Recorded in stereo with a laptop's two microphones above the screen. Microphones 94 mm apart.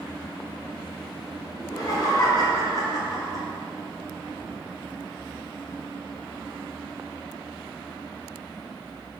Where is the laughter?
40° left (ahead or behind), 0.7 m.